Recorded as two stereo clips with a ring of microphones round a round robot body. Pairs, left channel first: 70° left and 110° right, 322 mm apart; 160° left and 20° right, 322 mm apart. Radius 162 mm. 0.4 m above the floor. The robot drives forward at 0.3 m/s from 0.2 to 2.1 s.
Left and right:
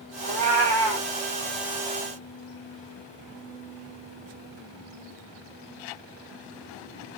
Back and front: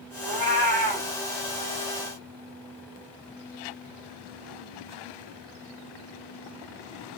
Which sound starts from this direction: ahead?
A cat meowing, at 0.2 s.